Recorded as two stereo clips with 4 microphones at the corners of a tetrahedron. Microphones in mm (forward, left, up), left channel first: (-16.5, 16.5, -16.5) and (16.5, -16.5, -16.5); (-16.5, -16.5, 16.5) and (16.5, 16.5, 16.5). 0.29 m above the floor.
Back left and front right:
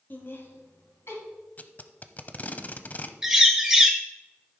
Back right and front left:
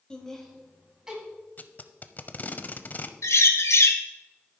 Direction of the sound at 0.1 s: 160° left.